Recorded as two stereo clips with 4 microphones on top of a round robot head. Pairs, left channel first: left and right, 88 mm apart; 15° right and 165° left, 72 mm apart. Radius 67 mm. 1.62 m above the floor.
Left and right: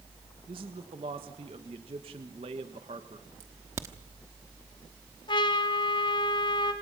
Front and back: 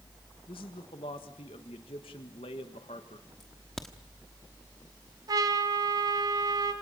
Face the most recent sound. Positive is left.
turn(degrees=130)